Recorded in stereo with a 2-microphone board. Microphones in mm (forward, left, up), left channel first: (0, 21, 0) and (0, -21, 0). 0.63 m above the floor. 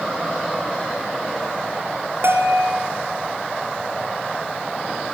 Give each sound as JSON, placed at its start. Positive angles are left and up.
{"t": 2.2, "sound": "a bell", "side_deg": -70, "distance_m": 2.5}